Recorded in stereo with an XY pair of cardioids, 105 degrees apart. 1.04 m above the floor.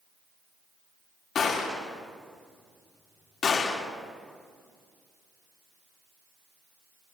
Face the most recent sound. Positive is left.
turn(degrees=55)